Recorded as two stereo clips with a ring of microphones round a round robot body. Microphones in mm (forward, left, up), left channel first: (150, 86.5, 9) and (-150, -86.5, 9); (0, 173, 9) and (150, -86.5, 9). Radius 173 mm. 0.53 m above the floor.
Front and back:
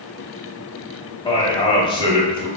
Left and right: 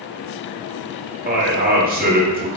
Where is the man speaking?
35° right, 0.9 m.